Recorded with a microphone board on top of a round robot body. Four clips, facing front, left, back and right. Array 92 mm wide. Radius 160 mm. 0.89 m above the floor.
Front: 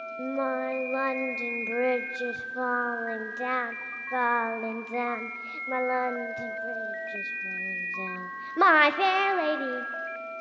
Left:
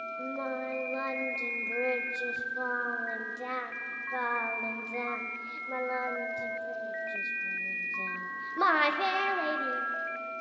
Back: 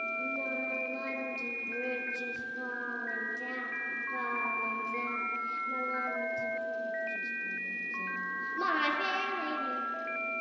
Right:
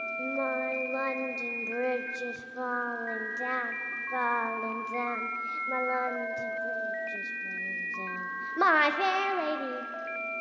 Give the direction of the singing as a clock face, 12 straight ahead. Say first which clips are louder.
Right 5 dB, front 7 dB; 12 o'clock.